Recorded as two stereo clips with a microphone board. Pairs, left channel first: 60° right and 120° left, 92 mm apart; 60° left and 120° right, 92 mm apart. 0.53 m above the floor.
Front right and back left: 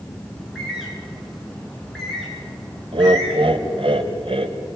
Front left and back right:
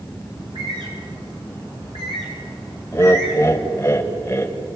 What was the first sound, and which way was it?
A bird, 145° right.